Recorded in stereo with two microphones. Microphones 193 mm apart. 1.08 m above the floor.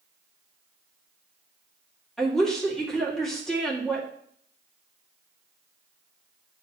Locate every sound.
2.2 s a woman speaking: 5° left (ahead or behind), 2 m